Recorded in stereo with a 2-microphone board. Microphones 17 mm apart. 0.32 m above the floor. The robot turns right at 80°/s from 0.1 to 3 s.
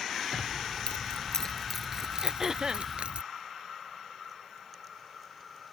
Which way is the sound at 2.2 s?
170° right.